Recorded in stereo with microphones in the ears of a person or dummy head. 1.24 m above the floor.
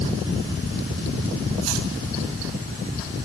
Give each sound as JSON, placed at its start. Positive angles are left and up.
{"t": 1.6, "sound": "chopping", "side_deg": -80, "distance_m": 4.0}